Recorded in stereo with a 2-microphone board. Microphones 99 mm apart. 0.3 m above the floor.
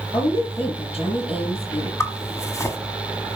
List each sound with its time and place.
0.1 s a woman speaking: 70° left (ahead or behind), 5.5 m
2.0 s a zipper: 30° left (ahead or behind), 1.4 m